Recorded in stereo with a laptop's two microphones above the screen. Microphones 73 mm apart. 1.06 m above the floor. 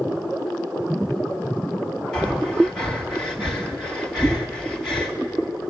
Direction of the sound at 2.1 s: 5° left (ahead or behind).